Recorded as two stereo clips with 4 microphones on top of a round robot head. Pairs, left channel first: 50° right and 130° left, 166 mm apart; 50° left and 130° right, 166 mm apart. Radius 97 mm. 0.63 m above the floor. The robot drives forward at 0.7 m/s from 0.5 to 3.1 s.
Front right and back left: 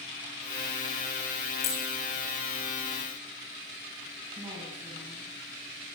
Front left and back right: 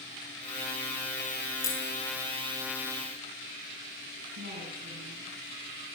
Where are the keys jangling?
20° right, 6.5 m.